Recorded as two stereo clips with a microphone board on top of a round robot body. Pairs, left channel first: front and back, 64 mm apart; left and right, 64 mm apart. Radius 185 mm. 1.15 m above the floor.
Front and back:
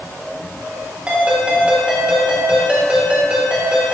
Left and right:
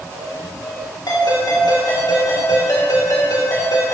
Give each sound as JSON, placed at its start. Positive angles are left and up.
{"t": 1.1, "sound": "a ringtone", "azimuth_deg": 105, "distance_m": 3.0}